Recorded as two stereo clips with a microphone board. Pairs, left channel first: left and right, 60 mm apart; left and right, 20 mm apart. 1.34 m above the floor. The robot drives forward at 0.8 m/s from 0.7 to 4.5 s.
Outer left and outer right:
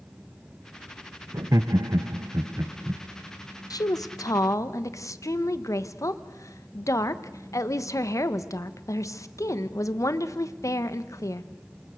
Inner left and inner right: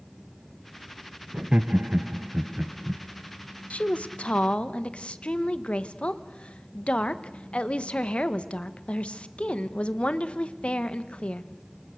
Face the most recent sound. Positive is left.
turn(degrees=60)  # may be behind; listen again after turning